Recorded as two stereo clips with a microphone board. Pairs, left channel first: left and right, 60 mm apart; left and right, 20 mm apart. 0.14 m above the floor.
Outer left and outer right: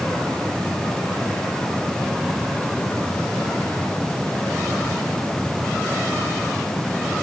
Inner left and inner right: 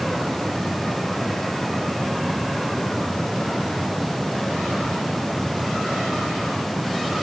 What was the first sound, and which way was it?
Only background noise.